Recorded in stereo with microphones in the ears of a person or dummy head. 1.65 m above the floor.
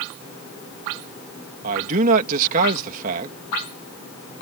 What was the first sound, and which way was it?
A man speaking, 45° right (ahead or behind).